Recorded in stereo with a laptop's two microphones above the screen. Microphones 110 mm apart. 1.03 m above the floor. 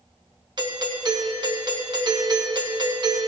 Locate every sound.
0.6 s a doorbell: 45° right (ahead or behind), 1.4 m